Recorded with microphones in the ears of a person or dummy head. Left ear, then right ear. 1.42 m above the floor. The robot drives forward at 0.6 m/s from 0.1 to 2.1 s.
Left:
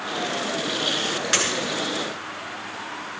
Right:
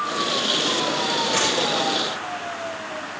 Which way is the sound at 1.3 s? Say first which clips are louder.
Left 1 dB; 70° left (ahead or behind).